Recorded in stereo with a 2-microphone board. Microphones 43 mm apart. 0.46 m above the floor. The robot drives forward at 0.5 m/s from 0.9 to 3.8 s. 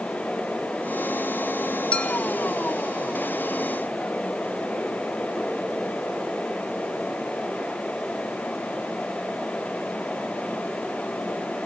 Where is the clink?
25° left (ahead or behind), 0.8 m.